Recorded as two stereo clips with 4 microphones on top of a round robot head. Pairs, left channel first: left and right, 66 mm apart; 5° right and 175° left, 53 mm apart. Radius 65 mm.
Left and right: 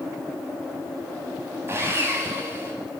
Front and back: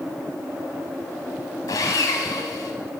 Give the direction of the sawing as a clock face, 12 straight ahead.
1 o'clock.